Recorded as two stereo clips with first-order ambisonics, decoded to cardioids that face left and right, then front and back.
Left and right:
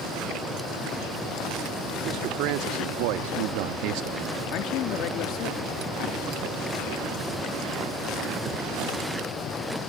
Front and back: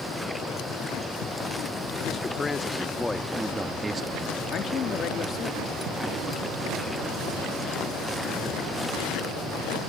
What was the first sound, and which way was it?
A man speaking, 70° right.